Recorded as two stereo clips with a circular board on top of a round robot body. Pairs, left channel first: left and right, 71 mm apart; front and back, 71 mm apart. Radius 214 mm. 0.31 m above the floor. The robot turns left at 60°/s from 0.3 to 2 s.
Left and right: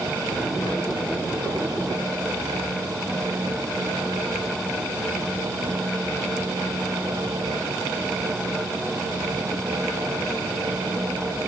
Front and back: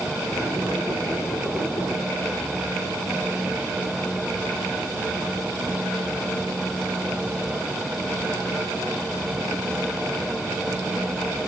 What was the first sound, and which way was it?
Only background noise.